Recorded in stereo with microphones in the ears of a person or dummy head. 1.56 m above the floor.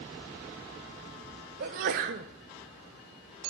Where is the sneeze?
40° right (ahead or behind), 0.6 m.